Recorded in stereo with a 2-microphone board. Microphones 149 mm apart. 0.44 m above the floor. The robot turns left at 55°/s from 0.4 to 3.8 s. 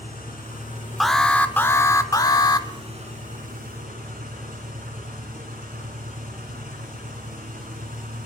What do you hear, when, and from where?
0.0 s an engine running: 95° left, 3 m; by 8.3 s 95° right, 3 m
1.0 s an alarm: centre (ahead or behind), 0.5 m; by 2.7 s 25° left (ahead or behind), 0.5 m